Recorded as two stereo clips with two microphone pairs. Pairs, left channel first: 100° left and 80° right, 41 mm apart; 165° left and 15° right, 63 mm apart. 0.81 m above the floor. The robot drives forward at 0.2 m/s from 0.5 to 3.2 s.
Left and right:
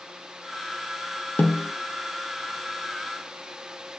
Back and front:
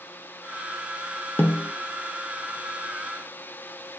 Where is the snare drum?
120° left, 0.5 m; by 1.7 s 125° left, 0.5 m.